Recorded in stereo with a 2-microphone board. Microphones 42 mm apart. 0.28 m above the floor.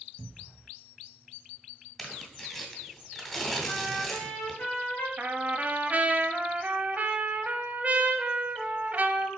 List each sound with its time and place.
0.2 s a cupboard door: 15° right (ahead or behind), 0.8 m
2.0 s tearing paper: 5° left (ahead or behind), 1.6 m
3.6 s a trumpet: 65° left (ahead or behind), 3.5 m
5.2 s a trumpet: 40° right (ahead or behind), 0.7 m